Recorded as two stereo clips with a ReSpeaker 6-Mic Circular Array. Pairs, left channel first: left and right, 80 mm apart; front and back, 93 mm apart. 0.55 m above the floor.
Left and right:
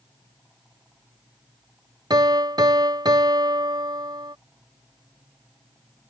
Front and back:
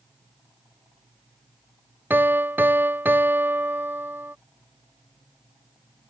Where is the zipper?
No zipper in this recording.